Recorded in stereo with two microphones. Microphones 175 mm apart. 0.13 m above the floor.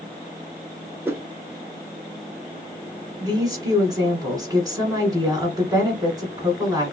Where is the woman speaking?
20° right (ahead or behind), 1.4 m.